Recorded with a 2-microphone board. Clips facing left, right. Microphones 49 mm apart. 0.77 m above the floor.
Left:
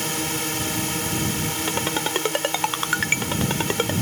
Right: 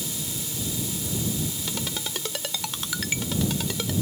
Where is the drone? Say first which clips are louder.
Left 9 dB; 65° left (ahead or behind).